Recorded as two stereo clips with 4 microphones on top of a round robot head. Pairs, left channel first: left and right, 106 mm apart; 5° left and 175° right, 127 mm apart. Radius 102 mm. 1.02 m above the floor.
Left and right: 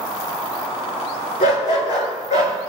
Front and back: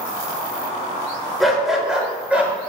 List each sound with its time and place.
1.4 s a dog barking: 95° left, 5.5 m; by 2.5 s 110° left, 6 m